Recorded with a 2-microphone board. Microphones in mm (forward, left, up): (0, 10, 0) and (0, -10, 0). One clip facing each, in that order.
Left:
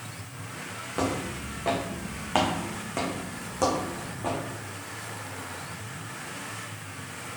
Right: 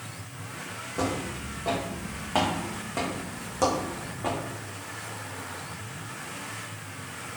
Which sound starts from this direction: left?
Footsteps, at 1.0 s.